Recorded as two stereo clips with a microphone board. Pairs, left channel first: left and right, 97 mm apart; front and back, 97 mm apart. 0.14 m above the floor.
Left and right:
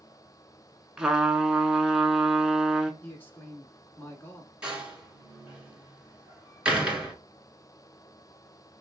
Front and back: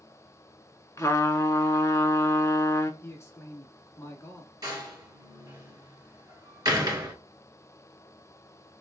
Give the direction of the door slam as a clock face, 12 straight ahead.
5 o'clock.